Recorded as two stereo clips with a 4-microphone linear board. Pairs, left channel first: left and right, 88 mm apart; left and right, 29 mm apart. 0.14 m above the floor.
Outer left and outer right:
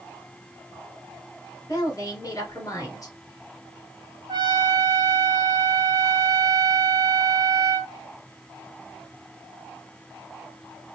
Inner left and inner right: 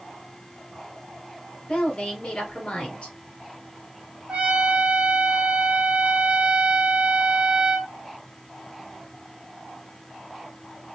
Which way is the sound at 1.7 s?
40° left (ahead or behind).